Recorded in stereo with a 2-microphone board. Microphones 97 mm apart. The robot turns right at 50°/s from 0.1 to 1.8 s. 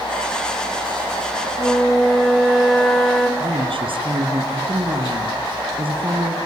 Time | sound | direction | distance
1.6 | a flute | 15° left (ahead or behind) | 3 m
3.4 | a woman speaking | 65° right (ahead or behind) | 3 m